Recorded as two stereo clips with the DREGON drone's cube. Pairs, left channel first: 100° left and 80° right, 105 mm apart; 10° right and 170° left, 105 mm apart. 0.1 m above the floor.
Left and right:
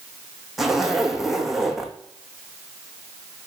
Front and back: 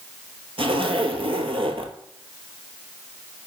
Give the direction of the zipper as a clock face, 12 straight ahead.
6 o'clock.